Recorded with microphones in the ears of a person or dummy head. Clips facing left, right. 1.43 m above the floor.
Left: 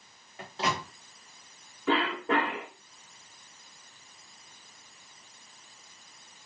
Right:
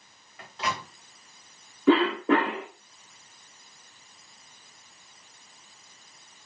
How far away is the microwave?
About 1.1 m.